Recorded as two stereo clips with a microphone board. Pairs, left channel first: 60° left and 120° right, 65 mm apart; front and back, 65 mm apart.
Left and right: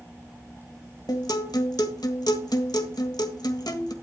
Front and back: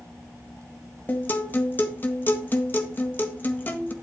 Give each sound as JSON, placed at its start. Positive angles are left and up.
{"t": 1.1, "sound": "a guitar", "azimuth_deg": 60, "distance_m": 1.6}